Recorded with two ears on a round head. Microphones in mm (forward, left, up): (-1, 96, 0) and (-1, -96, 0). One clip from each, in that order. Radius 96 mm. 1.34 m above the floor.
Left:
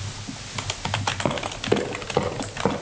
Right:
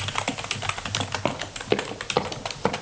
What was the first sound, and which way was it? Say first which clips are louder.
Running footsteps: left 1 dB; 35° right (ahead or behind).